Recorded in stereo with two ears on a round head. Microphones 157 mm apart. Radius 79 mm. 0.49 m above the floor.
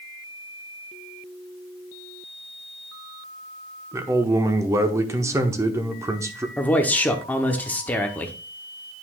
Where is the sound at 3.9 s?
15° right (ahead or behind), 0.9 m.